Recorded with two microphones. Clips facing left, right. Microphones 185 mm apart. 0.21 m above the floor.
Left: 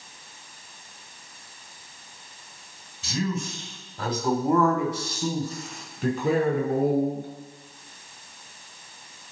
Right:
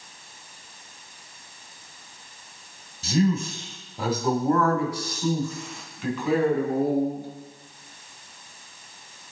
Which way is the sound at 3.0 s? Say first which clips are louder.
Right 6 dB; 45° right (ahead or behind).